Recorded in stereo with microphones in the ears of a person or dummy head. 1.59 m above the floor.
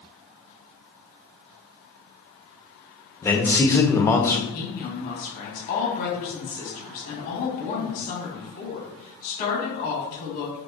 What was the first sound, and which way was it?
A man speaking, 15° left (ahead or behind).